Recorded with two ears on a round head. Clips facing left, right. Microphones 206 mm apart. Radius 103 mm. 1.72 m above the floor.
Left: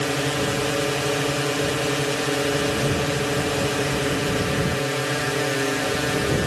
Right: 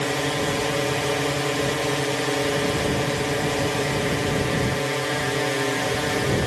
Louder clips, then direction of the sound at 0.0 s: Left 1 dB; 10° left (ahead or behind).